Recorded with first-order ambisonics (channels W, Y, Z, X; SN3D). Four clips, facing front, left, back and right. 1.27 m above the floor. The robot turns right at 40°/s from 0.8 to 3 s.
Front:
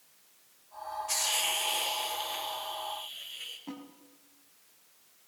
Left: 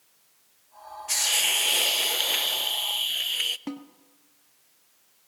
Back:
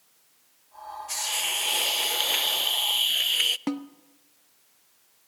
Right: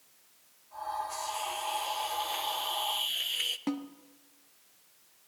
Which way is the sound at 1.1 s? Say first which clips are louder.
Left 11 dB, back 2 dB; 85° left.